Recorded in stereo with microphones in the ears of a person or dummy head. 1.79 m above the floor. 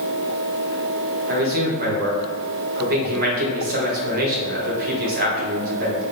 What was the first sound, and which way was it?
A man speaking, 50° right (ahead or behind).